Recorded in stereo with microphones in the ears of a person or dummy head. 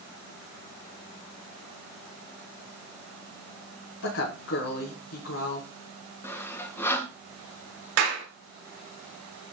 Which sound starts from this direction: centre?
Sawing, at 6.2 s.